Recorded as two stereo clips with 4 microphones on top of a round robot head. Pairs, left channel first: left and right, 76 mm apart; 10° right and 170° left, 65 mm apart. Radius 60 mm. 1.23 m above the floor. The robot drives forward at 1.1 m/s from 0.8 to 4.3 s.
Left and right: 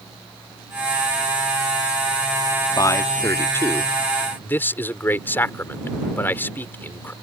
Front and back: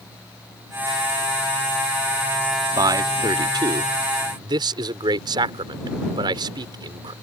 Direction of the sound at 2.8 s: 135° left.